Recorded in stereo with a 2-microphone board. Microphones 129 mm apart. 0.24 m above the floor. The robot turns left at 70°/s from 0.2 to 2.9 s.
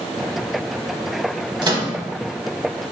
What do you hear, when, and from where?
1.6 s a microwave: 40° right (ahead or behind), 1.0 m; by 1.9 s 35° right (ahead or behind), 1.0 m